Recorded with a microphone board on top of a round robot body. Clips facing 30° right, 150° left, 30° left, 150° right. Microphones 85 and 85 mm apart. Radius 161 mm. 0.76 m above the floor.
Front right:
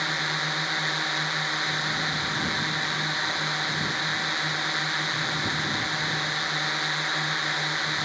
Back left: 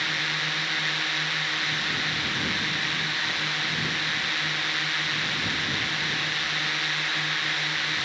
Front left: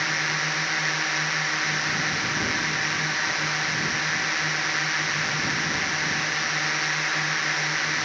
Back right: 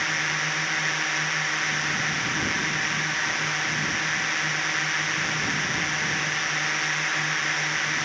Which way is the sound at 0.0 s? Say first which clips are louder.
Front right 1 dB, front left 1 dB; 50° right.